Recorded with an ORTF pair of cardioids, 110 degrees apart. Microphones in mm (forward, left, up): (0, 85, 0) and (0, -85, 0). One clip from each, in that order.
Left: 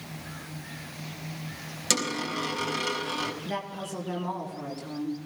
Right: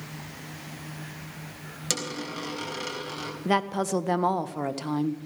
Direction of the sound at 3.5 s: 65° right.